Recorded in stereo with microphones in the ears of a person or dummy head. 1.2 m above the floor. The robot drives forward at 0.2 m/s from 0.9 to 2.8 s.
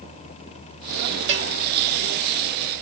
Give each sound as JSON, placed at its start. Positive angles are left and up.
{"t": 1.3, "sound": "a bell", "side_deg": -75, "distance_m": 3.0}